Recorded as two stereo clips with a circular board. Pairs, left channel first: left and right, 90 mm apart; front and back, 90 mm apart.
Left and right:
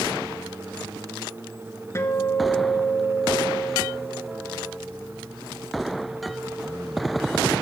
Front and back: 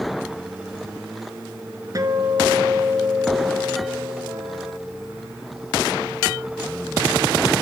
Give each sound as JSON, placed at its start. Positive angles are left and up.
{"t": 1.9, "sound": "a guitar", "azimuth_deg": 145, "distance_m": 0.8}